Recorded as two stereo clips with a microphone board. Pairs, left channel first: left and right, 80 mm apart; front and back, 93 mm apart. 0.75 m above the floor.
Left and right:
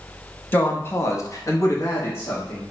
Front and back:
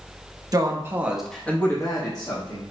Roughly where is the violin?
No violin in this recording.